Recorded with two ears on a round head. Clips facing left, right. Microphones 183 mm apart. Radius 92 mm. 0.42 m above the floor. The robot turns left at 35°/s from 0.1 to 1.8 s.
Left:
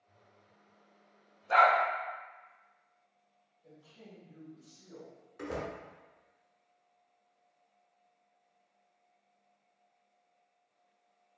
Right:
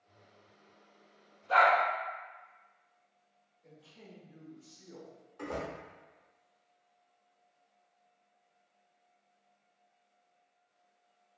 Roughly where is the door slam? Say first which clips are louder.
Even; left.